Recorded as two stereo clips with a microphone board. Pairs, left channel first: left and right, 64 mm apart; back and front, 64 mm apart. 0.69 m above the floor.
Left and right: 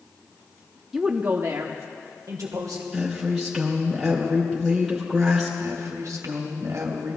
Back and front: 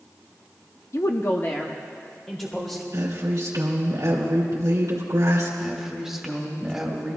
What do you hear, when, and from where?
0.9 s a woman speaking: straight behind, 0.7 m; by 2.8 s 100° right, 2 m
2.9 s a woman speaking: 5° right, 2.5 m
5.6 s a woman speaking: 85° right, 2.5 m